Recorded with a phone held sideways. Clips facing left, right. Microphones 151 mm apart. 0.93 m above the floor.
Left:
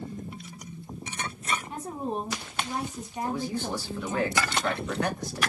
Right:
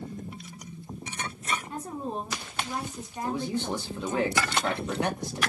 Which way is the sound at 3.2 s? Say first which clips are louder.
Right 1 dB; 20° right (ahead or behind).